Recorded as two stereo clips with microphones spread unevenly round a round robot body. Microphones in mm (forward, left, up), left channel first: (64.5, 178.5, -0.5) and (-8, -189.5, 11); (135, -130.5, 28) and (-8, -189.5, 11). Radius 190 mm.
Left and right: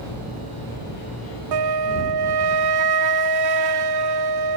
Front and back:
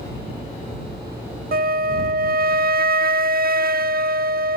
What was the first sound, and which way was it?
A flute, 135° right.